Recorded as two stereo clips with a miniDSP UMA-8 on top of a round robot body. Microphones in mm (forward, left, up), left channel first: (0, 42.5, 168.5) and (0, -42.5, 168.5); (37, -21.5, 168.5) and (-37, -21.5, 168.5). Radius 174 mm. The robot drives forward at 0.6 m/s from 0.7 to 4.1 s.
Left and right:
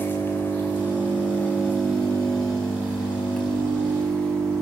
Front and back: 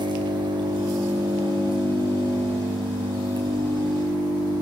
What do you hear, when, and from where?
0.0 s an engine running: 155° left, 1.9 m; by 4.6 s 170° left, 4 m